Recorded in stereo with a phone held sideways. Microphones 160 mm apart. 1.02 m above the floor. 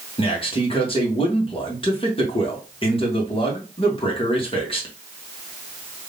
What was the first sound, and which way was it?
A man speaking, 35° left (ahead or behind).